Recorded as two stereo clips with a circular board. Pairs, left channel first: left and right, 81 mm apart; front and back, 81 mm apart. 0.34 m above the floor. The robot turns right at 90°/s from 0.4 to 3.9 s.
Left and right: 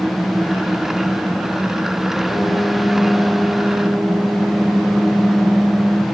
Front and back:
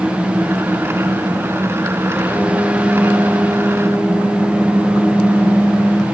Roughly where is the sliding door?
No sliding door in this recording.